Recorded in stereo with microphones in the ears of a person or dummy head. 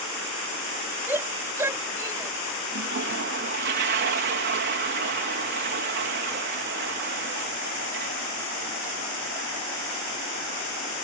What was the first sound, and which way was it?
A shout, 15° right (ahead or behind).